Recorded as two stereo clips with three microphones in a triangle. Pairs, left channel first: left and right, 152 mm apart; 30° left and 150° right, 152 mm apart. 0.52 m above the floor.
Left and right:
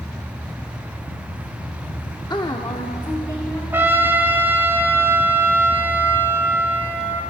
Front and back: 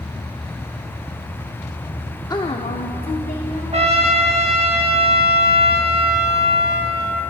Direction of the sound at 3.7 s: 160° right.